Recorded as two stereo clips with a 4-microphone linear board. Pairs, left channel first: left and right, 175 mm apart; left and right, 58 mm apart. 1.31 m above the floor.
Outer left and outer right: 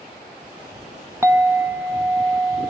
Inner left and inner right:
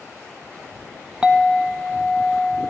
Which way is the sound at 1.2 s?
15° right (ahead or behind).